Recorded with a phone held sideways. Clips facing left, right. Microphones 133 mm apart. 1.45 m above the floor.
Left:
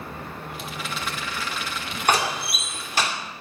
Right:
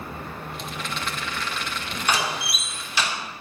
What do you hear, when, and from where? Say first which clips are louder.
0.5 s a rattle: even; 5° left (ahead or behind), 1.7 m
2.1 s a door slam: left 3 dB; 50° left (ahead or behind), 2.5 m